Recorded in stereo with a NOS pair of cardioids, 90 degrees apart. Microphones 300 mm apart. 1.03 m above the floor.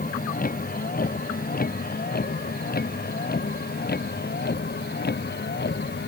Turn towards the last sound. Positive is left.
turn(degrees=35)